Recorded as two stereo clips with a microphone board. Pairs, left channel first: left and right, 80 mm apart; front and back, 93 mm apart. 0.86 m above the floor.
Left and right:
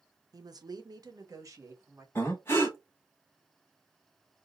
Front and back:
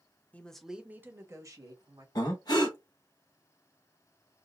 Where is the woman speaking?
70° right, 0.6 m; by 2.0 s 140° right, 1.3 m.